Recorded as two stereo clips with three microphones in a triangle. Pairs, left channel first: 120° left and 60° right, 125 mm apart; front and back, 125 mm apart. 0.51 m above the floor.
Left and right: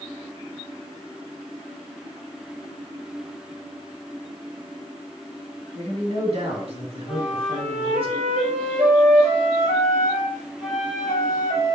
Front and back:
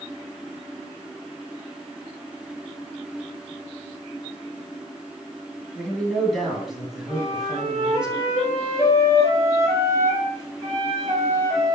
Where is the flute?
70° right, 4.5 m.